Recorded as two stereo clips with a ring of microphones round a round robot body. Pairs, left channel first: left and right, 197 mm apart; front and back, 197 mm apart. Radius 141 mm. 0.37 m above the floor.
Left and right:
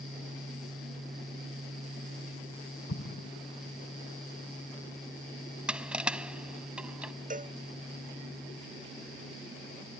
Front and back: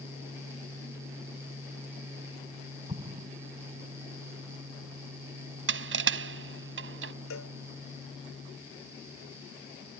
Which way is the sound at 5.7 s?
175° right.